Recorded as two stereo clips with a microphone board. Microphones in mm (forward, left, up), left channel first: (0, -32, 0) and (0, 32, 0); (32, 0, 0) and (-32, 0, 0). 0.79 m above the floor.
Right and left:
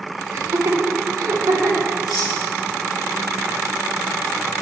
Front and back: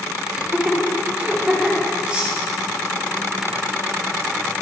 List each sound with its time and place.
0.3 s laughter: 110° left, 2 m; by 1.9 s 105° left, 3 m
2.1 s cutlery clinking: 110° right, 3.5 m